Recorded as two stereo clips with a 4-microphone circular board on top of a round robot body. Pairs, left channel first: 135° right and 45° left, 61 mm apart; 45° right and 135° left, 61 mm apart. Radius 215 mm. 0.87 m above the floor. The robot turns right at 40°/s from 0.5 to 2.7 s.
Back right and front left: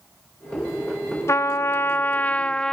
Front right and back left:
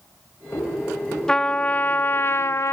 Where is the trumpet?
120° right, 0.8 m; by 2.7 s 60° right, 0.8 m.